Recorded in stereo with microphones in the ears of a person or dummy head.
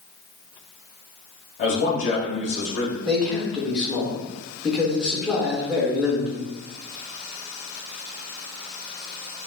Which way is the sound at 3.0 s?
Centre (ahead or behind).